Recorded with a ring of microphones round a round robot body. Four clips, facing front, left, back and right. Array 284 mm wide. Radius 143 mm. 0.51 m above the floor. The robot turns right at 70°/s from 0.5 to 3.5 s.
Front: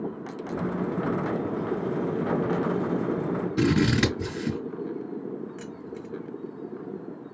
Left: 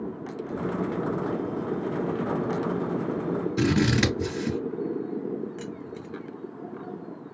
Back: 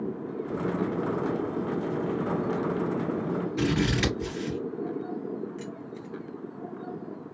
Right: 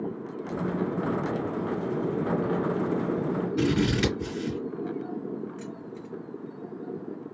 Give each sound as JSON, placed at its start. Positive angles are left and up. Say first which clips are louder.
{"t": 3.6, "sound": "scissors", "louder": "left 2 dB, front 5 dB", "azimuth_deg": 35, "distance_m": 4.0}
{"t": 5.6, "sound": "keys jangling", "louder": "left 2 dB, front 1 dB", "azimuth_deg": 65, "distance_m": 1.8}